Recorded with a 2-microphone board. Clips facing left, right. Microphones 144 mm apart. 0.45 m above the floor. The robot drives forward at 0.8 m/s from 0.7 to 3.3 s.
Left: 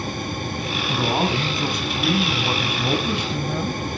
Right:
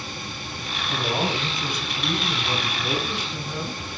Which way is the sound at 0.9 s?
50° left (ahead or behind).